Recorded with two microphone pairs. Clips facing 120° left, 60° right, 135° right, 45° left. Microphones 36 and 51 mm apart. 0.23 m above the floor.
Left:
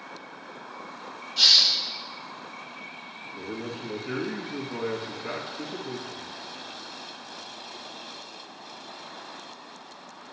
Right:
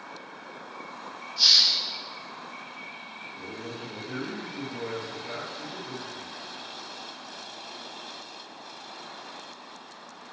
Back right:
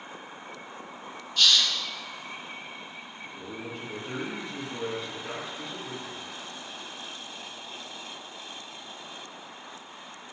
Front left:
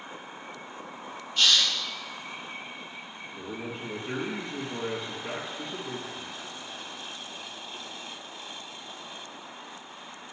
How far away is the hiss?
About 2 m.